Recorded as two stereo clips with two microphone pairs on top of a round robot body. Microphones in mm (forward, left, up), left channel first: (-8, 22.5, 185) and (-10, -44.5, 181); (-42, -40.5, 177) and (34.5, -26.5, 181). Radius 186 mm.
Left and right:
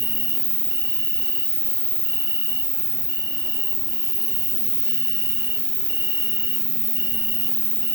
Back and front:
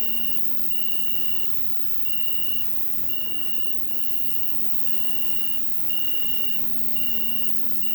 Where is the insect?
50° right, 1.0 m.